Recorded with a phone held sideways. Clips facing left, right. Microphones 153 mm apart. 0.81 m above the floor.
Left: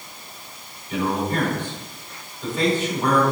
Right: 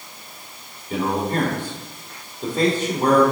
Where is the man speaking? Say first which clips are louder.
Right 1 dB; 40° right (ahead or behind), 2.5 m.